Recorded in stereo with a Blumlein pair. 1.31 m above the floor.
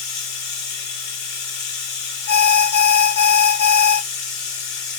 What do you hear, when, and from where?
0.0 s running water: 50° left, 1.2 m
2.3 s an alarm: 65° left, 0.8 m